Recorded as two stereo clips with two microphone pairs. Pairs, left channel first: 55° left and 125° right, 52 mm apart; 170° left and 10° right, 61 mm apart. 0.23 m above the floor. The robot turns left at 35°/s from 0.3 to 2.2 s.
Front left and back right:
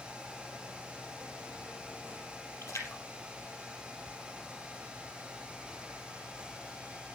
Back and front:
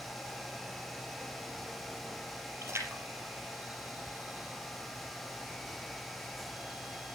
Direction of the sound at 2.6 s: 35° left.